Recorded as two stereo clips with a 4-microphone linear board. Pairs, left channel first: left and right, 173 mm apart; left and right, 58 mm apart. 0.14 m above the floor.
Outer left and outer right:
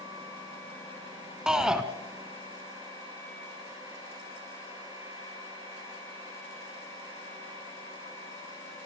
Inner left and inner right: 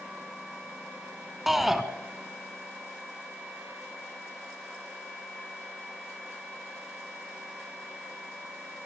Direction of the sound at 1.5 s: 5° right (ahead or behind).